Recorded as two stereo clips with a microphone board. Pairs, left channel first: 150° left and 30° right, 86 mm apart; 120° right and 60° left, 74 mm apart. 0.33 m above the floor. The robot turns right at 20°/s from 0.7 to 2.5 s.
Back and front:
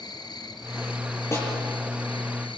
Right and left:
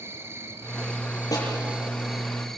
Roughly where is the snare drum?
Behind right.